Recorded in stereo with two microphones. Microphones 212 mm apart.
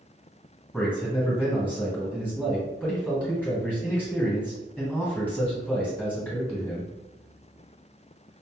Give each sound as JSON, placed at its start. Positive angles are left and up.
{"t": 0.7, "sound": "a man speaking", "side_deg": 10, "distance_m": 1.9}